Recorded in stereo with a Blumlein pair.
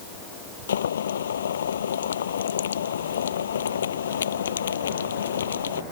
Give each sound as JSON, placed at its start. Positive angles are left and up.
{"t": 0.7, "sound": "boiling", "azimuth_deg": 65}